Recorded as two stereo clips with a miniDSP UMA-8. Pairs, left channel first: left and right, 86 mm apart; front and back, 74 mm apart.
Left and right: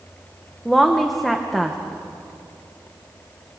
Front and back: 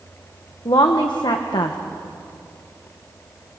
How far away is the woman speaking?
About 1.3 m.